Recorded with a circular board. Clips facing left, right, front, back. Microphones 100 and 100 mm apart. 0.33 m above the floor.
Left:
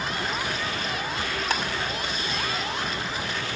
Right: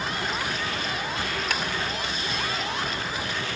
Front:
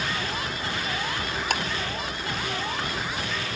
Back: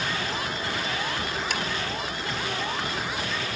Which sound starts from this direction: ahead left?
Ticking, at 1.5 s.